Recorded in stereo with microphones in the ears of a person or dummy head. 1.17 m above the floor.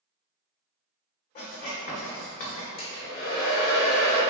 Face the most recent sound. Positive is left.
turn(degrees=50)  # may be behind; listen again after turning